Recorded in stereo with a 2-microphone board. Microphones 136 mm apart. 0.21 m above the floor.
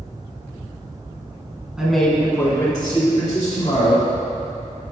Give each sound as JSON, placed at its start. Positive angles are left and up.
{"t": 1.8, "sound": "a man speaking", "side_deg": -5, "distance_m": 1.8}